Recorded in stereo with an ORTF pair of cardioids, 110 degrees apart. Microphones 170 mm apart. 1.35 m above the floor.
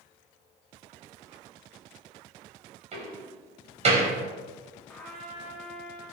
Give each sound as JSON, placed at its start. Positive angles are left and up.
{"t": 2.9, "sound": "a door slam", "azimuth_deg": -40, "distance_m": 4.0}
{"t": 4.9, "sound": "a trumpet", "azimuth_deg": 5, "distance_m": 3.5}